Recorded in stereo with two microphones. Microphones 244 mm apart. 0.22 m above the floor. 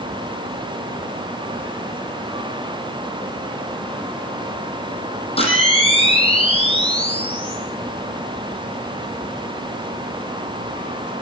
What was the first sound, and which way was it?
A camera shutter, 25° left (ahead or behind).